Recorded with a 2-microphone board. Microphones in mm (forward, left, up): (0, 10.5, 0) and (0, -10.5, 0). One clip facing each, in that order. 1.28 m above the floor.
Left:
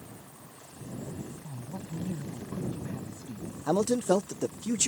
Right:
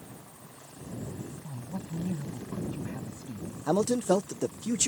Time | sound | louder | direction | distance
1.4 | a man speaking | right 2 dB | 75° right (ahead or behind) | ?
3.7 | a man speaking | even | 20° left (ahead or behind) | ?